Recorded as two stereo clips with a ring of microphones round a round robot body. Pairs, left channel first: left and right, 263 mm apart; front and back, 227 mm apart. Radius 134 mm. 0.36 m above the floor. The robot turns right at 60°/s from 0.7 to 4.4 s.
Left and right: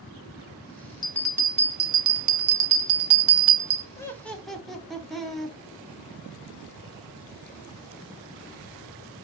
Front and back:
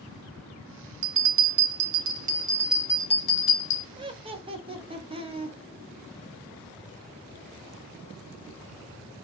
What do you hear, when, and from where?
1.0 s a bell: 165° left, 0.7 m; by 3.9 s 25° right, 0.7 m
4.0 s laughter: 150° left, 0.9 m; by 5.6 s straight behind, 0.9 m